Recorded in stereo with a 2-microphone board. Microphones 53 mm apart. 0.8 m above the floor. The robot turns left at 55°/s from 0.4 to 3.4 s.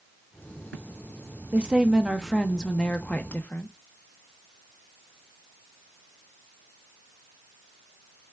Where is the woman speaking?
135° right, 0.5 m; by 3.7 s 120° left, 0.5 m.